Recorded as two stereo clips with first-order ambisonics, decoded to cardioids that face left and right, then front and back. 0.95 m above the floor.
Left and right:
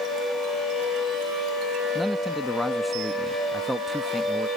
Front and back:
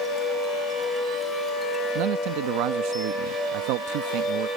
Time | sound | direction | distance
1.9 | a man speaking | 175° right | ?